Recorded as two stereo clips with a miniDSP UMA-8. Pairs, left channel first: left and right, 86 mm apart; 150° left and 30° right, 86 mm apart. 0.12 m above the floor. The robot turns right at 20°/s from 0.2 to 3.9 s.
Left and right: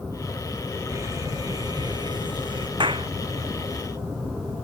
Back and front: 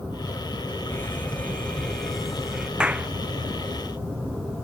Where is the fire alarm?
145° right; by 2.7 s 110° right.